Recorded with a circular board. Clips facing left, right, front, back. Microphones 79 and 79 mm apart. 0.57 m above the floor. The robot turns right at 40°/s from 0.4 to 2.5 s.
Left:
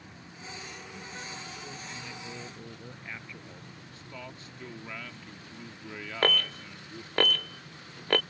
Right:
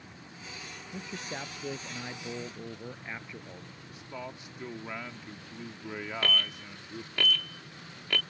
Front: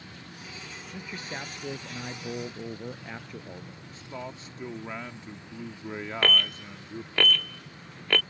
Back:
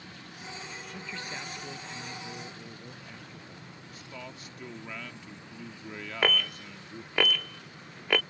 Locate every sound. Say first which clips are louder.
0.9 s a man speaking: right 6 dB, front 3 dB; 85° right; by 3.9 s 20° right
3.9 s a man speaking: right 4 dB, front 6 dB; 35° right
6.2 s an alarm: left 6 dB, front 1 dB; 105° left